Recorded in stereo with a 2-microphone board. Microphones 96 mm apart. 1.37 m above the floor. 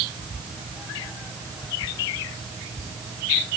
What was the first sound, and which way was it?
Only background noise.